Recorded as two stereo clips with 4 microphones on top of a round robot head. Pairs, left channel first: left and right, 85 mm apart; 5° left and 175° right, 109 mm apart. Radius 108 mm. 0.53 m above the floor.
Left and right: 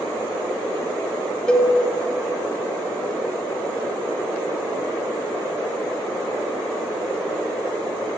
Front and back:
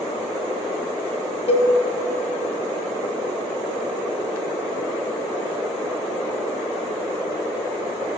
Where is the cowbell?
10° left, 0.8 m.